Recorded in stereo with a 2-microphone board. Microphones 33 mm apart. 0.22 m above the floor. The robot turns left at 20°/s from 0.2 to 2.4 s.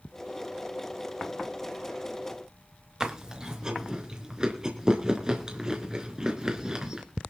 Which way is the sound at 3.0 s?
20° right (ahead or behind).